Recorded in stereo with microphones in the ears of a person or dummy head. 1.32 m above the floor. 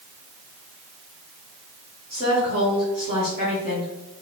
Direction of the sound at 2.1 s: 45° right (ahead or behind).